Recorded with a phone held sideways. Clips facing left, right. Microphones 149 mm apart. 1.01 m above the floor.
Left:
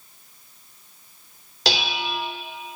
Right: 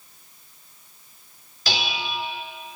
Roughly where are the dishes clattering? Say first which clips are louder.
Left 3 dB; left.